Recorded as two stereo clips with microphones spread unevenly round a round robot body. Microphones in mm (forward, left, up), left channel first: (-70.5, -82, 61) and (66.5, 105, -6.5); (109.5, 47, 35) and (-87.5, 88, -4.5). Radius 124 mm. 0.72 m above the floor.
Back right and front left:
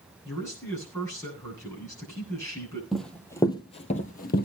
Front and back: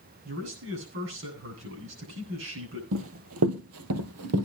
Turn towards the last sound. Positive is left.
turn(degrees=-160)